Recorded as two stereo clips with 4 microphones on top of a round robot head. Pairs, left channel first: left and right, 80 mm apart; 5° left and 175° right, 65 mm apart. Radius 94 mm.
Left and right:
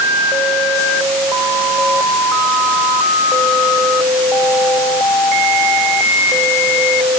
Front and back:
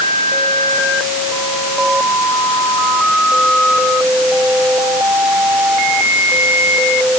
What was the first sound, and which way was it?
Only background noise.